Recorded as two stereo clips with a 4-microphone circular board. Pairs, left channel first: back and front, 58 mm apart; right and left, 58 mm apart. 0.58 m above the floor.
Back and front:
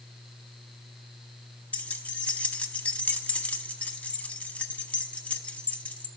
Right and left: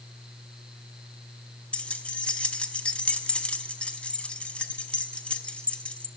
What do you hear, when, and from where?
1.7 s keys jangling: 135° right, 0.7 m